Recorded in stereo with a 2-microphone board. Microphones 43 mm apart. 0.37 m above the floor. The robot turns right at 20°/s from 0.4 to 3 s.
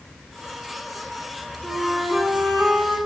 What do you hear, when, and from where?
1.6 s a flute: 10° right (ahead or behind), 2.0 m; by 3.0 s 35° right (ahead or behind), 2.0 m